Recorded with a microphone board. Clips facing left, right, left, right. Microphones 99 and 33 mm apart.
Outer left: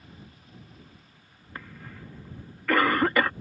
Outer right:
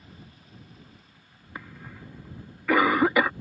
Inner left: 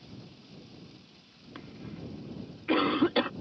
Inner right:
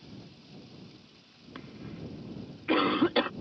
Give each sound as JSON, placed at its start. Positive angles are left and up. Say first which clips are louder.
{"t": 1.6, "sound": "a cough", "louder": "outer right 1 dB, even", "side_deg": -5}